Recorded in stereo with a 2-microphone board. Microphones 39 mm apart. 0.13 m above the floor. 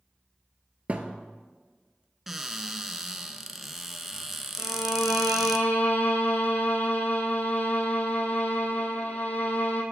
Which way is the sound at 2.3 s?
10° right (ahead or behind).